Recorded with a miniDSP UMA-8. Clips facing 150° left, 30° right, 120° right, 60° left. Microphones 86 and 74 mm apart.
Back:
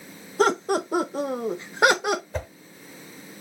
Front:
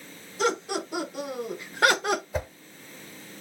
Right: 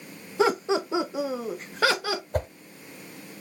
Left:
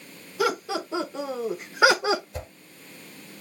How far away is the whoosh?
About 0.9 m.